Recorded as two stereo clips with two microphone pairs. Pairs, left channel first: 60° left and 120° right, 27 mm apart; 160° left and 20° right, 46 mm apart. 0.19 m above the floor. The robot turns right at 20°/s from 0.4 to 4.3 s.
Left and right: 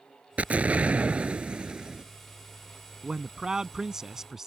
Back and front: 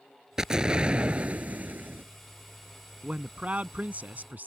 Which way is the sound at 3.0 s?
75° right.